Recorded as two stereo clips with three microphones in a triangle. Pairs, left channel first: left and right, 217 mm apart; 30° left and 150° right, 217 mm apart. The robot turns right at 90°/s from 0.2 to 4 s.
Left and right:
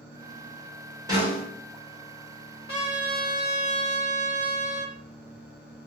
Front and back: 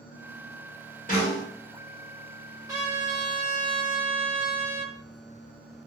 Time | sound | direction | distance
1.1 | a snare drum | 20° right | 1.9 m
2.7 | a trumpet | 135° left | 1.5 m